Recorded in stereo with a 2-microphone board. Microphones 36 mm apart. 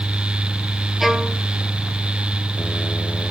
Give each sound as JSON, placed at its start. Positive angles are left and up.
{"t": 1.0, "sound": "a violin", "side_deg": -10, "distance_m": 0.9}